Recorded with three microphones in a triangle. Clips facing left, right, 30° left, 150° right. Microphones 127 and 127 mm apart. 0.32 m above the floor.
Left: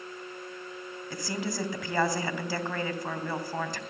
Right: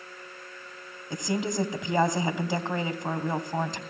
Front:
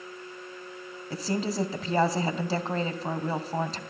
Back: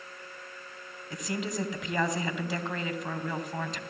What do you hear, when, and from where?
1.1 s a woman speaking: 25° right, 2.5 m